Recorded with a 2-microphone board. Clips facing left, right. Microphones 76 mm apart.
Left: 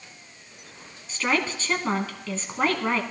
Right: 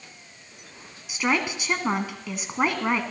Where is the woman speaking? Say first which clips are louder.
Right 1 dB; 15° right (ahead or behind), 1.3 m.